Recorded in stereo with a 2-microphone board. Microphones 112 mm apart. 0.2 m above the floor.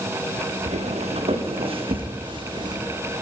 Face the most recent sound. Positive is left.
turn(degrees=-40)  # may be behind; listen again after turning